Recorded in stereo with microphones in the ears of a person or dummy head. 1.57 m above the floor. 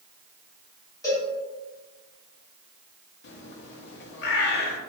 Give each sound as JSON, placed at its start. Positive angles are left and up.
{"t": 1.0, "sound": "a cowbell", "side_deg": 15, "distance_m": 1.3}
{"t": 3.2, "sound": "a bird", "side_deg": 60, "distance_m": 0.6}